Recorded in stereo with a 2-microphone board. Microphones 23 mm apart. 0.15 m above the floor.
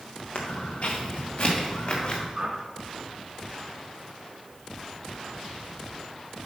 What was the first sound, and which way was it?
Footsteps, 75° left (ahead or behind).